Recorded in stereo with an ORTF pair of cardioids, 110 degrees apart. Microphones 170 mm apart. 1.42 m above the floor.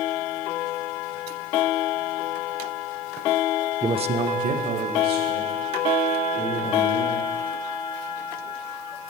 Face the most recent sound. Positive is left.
turn(degrees=-80)